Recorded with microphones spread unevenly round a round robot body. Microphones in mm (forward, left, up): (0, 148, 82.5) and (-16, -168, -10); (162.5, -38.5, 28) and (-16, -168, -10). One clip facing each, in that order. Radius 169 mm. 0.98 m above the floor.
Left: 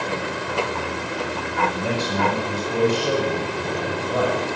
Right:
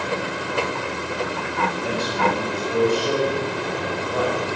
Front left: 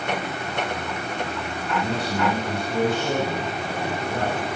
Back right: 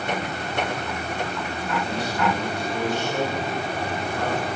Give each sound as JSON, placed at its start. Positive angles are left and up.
{"t": 1.7, "sound": "a man speaking", "azimuth_deg": 80, "distance_m": 7.5}